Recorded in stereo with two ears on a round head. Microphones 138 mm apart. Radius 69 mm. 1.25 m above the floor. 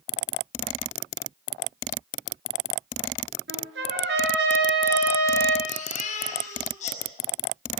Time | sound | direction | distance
3.5 | a trumpet | 75° right (ahead or behind) | 6.5 m
5.7 | a baby crying | 50° left (ahead or behind) | 5.5 m